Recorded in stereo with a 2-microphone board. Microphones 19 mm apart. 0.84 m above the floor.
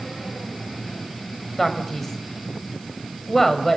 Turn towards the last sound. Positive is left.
turn(degrees=15)  # may be behind; listen again after turning